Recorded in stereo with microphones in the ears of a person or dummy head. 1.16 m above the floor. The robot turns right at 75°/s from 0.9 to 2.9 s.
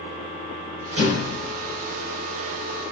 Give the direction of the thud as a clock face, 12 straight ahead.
2 o'clock.